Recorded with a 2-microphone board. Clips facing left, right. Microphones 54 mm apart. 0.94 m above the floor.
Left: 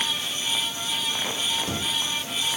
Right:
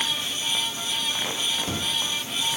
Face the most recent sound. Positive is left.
No sound to turn to.